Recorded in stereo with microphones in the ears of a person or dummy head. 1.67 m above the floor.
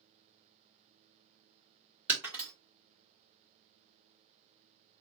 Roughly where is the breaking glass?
Centre.